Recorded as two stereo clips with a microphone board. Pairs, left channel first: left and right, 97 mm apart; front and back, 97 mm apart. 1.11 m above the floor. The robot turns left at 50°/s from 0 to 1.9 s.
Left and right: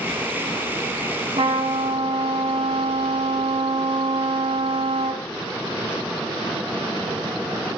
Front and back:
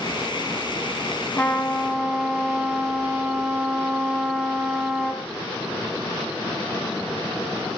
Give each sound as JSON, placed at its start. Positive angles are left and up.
{"t": 1.4, "sound": "a trumpet", "azimuth_deg": -70, "distance_m": 2.5}